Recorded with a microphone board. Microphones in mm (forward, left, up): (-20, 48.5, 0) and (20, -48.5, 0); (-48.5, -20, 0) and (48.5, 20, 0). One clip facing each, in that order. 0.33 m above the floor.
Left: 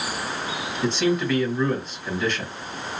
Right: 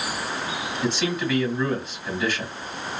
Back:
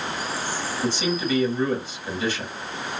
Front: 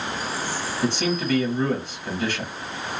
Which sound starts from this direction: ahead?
A man speaking, at 0.8 s.